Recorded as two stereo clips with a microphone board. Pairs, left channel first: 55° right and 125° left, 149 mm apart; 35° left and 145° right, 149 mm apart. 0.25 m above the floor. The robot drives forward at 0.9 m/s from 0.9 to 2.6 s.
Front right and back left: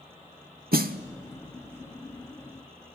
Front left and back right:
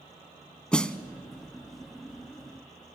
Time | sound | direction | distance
0.7 | a snare drum | 115° left | 0.7 m